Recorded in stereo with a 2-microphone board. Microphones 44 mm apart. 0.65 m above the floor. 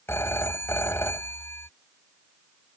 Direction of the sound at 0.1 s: 90° left.